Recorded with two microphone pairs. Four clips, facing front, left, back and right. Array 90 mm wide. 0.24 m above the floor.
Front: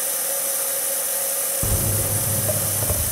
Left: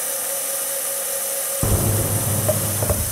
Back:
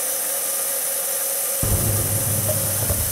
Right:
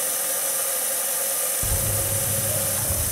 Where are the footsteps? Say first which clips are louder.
Left 10 dB, back 2 dB; 100° left, 1.3 m; by 3.0 s 85° left, 3.5 m.